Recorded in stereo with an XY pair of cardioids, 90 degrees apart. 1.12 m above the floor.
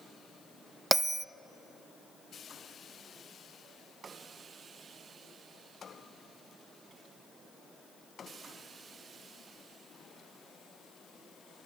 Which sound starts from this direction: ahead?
A bell, at 0.9 s.